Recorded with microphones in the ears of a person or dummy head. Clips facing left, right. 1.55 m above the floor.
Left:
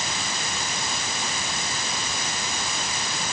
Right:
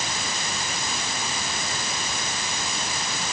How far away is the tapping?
No tapping in this recording.